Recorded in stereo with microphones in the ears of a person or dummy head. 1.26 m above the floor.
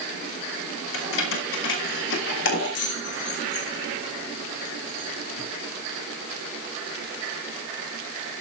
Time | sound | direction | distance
0.9 | keys jangling | 75° left (ahead or behind) | 4 m